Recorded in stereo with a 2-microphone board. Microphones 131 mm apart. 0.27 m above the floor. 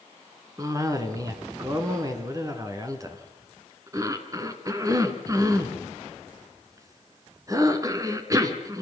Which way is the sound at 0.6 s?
25° right (ahead or behind).